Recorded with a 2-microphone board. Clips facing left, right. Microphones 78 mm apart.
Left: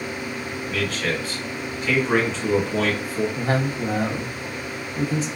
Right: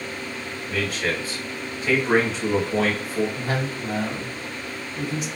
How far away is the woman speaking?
About 0.7 m.